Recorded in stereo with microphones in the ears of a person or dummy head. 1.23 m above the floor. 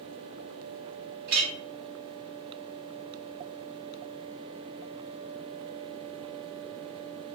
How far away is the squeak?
I don't hear a squeak.